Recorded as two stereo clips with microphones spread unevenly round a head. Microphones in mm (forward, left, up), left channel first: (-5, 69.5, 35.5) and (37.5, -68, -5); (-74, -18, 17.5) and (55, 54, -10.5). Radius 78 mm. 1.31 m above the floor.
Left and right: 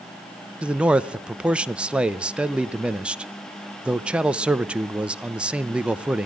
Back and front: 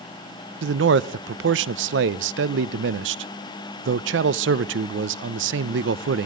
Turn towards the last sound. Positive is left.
turn(degrees=15)